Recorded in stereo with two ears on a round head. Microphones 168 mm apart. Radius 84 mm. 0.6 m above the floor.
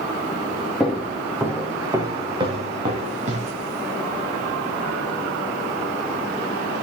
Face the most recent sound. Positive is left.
turn(degrees=-40)  # may be behind; listen again after turning